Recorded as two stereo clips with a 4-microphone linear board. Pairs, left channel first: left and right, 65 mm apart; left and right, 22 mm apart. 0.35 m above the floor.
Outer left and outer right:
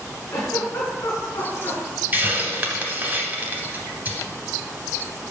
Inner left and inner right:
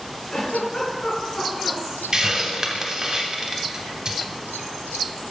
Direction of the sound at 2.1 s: 30° right (ahead or behind).